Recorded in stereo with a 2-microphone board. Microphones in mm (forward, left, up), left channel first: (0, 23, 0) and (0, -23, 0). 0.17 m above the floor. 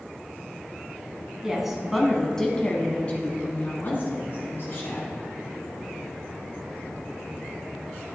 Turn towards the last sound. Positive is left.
turn(degrees=50)  # may be behind; listen again after turning